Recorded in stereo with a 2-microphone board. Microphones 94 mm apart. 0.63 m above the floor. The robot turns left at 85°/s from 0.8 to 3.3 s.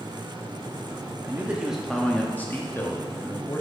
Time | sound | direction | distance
1.2 | a man speaking | 20° right (ahead or behind) | 0.5 m